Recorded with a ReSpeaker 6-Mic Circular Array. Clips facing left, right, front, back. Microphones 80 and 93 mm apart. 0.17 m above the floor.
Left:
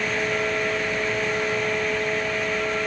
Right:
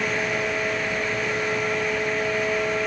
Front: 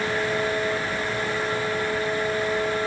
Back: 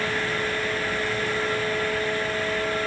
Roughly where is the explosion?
I don't hear an explosion.